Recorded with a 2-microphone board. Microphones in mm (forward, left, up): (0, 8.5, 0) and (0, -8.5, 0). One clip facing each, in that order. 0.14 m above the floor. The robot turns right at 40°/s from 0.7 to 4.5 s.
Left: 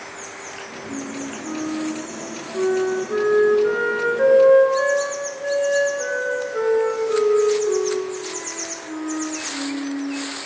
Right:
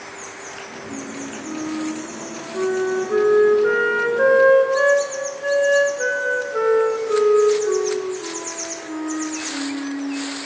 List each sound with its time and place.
0.9 s a flute: 125° left, 0.9 m; by 10.1 s 95° right, 0.9 m